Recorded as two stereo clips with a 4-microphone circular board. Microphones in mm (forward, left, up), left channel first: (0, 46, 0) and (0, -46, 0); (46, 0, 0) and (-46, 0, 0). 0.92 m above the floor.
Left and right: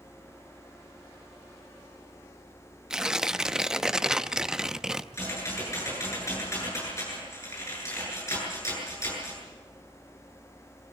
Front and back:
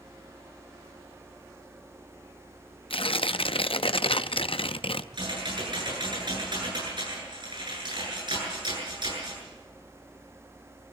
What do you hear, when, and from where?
2.9 s tearing paper: 5° right, 0.6 m
5.1 s typing on a keyboard: 150° left, 9 m